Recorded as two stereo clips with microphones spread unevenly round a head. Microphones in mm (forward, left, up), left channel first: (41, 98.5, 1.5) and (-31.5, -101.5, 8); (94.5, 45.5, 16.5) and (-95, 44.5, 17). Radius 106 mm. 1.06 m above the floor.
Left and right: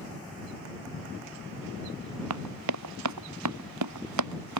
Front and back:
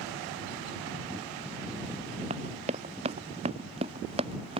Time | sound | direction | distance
2.3 | running footsteps | 115° right | ?